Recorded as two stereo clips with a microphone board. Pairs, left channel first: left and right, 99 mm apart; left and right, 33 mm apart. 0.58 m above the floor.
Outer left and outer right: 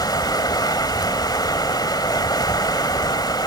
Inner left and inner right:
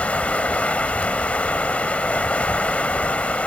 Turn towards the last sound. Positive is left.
turn(degrees=40)  # may be behind; listen again after turning